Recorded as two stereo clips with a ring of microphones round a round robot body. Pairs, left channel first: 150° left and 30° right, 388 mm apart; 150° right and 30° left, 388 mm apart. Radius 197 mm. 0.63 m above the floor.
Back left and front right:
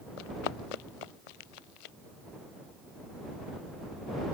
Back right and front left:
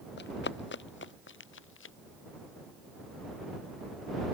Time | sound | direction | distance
0.2 | running footsteps | 145° left | ?